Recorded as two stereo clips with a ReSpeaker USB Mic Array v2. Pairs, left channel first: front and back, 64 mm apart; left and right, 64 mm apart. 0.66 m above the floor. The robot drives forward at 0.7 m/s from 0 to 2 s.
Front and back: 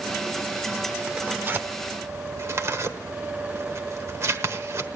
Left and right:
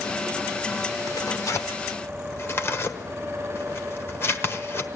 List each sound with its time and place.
1.1 s tearing paper: 105° left, 0.8 m; by 4.9 s 140° left, 1.1 m